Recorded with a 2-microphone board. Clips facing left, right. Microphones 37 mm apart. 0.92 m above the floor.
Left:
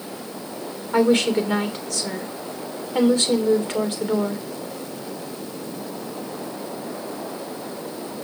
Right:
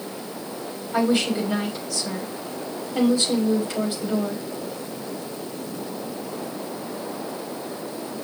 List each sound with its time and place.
0.9 s a woman speaking: 55° left (ahead or behind), 3 m